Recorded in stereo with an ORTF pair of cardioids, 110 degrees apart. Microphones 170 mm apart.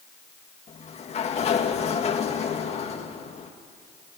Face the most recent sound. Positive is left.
turn(degrees=40)